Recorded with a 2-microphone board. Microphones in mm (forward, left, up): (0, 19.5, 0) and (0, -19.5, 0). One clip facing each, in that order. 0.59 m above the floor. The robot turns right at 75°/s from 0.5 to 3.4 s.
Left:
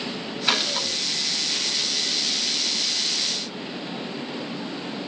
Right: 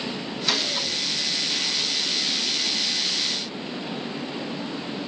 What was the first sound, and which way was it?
A gunshot, 50° left.